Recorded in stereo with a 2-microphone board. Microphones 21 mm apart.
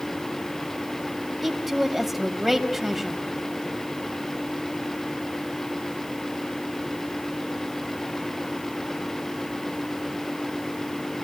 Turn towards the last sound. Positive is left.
turn(degrees=-5)  # may be behind; listen again after turning